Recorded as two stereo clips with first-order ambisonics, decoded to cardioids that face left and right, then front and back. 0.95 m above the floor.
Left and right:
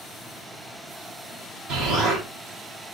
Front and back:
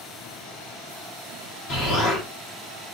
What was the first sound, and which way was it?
An explosion, 50° right.